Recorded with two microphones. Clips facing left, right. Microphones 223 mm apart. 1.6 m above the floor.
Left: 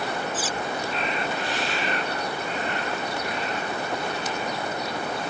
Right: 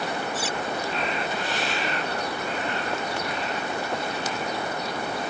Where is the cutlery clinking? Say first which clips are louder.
Even; 55° right (ahead or behind).